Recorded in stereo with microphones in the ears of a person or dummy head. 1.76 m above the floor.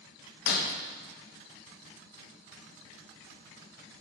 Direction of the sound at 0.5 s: 60° left (ahead or behind).